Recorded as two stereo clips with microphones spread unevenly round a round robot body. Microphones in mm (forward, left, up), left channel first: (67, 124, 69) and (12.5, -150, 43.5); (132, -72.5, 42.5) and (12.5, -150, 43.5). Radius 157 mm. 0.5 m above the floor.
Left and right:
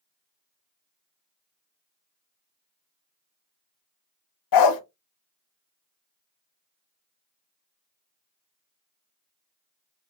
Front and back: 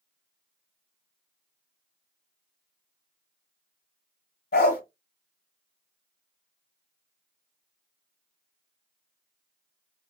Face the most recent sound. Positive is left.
turn(degrees=70)